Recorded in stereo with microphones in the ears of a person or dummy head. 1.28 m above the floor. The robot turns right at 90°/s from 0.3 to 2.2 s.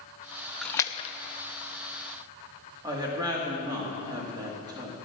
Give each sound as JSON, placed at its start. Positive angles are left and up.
{"t": 0.6, "sound": "a splash", "side_deg": 0, "distance_m": 0.7}
{"t": 2.8, "sound": "a woman speaking", "side_deg": -25, "distance_m": 2.0}